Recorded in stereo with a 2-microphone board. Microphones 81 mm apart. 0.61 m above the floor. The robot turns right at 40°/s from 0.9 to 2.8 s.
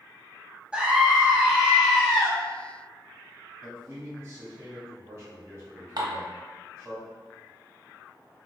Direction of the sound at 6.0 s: 55° right (ahead or behind).